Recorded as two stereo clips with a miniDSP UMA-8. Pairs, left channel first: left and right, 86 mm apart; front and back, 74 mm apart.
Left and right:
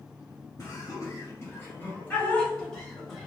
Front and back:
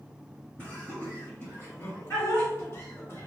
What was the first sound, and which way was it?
Laughter, 60° left.